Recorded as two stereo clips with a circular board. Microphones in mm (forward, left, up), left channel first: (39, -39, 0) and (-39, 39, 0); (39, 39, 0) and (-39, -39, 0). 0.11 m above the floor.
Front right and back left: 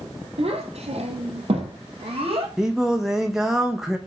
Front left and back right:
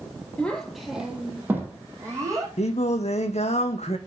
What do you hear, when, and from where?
0.4 s a child speaking: 120° left, 1.8 m; by 2.5 s 165° left, 3 m
2.6 s singing: 50° left, 1.0 m